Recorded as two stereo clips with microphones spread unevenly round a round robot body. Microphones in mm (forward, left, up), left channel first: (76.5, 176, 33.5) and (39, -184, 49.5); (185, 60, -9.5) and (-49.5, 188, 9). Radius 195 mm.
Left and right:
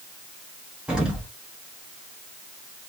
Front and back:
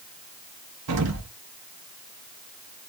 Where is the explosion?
175° left, 0.8 m.